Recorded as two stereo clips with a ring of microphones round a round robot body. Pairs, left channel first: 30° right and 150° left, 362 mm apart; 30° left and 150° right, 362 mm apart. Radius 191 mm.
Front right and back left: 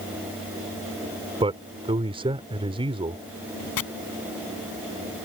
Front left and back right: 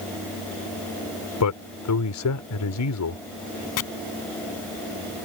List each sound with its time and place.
1.4 s a man speaking: 75° left
3.8 s chopping: straight ahead